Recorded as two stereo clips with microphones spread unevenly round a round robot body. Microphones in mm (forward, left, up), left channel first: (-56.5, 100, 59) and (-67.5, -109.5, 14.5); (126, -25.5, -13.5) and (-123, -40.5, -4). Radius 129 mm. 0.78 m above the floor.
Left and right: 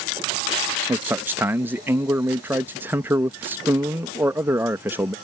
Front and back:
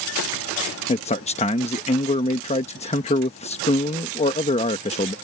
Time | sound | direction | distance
0.9 | a man speaking | 40° right | ?